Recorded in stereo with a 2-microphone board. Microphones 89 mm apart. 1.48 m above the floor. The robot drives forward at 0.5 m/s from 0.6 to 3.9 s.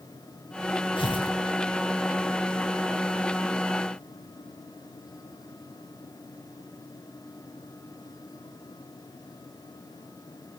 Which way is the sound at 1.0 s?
75° left (ahead or behind).